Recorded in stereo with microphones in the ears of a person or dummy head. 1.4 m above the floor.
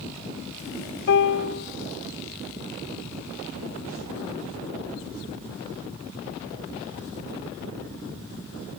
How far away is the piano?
About 0.7 m.